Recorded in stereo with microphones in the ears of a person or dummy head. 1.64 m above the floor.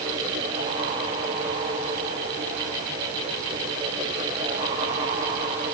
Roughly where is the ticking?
No ticking in this recording.